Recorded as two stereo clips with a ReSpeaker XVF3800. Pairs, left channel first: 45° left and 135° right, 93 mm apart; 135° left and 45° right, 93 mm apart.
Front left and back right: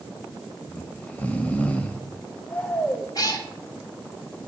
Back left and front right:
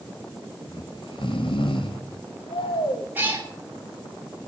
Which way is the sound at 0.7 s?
120° left.